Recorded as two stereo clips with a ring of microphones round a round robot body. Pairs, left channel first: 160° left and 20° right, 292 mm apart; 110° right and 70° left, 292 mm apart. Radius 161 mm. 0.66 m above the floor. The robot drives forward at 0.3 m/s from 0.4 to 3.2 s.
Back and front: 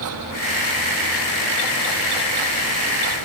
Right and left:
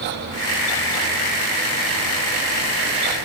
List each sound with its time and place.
Only background noise.